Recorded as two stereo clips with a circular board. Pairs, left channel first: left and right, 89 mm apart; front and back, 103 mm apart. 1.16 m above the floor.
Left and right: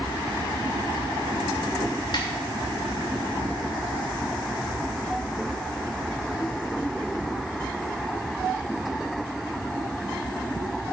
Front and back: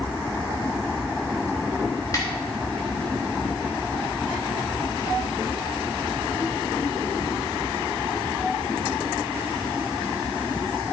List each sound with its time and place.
2.1 s a snare drum: 55° left, 3 m